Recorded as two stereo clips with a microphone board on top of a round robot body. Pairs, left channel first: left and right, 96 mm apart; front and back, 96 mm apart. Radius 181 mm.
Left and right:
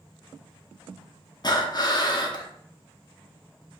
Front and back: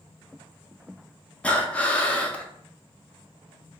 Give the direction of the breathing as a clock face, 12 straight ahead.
10 o'clock.